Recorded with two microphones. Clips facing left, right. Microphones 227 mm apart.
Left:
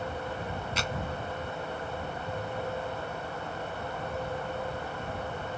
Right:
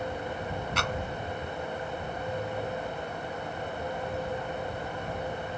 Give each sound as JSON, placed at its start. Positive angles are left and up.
{"t": 0.8, "sound": "a clap", "side_deg": -60}